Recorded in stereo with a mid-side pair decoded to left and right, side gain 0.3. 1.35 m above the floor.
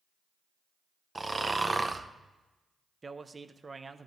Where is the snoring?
30° right, 0.8 m.